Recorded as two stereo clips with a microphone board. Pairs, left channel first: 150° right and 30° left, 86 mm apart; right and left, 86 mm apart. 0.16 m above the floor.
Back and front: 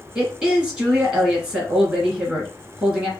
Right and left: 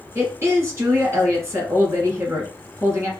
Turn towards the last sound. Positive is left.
turn(degrees=110)